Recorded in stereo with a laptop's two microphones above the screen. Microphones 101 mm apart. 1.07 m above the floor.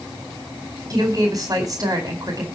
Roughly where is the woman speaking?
Right.